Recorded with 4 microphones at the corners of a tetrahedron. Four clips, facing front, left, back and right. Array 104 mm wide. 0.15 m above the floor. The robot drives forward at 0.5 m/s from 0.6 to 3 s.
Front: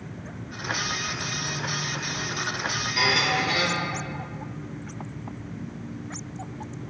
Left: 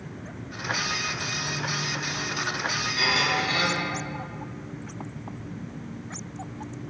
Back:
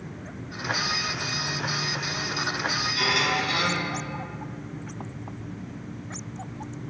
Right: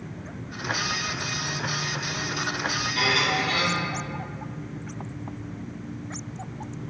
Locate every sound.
3.0 s a squeak: 30° right, 2 m